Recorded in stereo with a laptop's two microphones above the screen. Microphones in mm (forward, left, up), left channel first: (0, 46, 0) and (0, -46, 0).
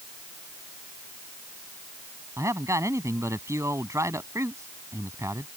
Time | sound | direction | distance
2.4 | a man speaking | 30° right (ahead or behind) | ?